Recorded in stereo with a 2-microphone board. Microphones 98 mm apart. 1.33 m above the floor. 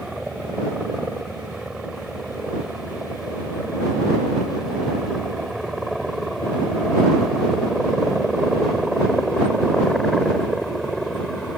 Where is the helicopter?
5° right (ahead or behind); by 11.6 s centre (ahead or behind).